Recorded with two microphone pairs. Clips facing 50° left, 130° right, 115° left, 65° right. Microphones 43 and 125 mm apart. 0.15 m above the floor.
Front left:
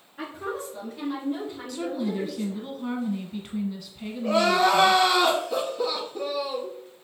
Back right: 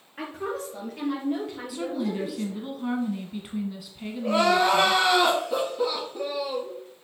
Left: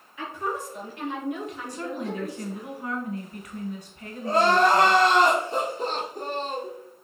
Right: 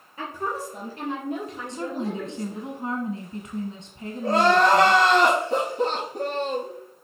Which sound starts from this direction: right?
A woman speaking, at 0.2 s.